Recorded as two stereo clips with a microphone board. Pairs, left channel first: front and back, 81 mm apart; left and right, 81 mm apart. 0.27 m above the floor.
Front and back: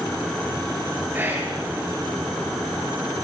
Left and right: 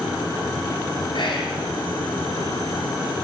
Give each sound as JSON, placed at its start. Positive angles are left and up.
{"t": 1.1, "sound": "whispering", "azimuth_deg": 110, "distance_m": 4.5}